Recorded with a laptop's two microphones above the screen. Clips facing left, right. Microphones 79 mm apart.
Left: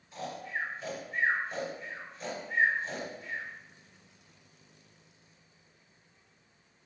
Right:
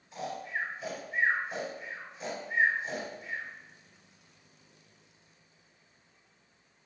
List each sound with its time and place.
0.1 s snoring: centre (ahead or behind), 3 m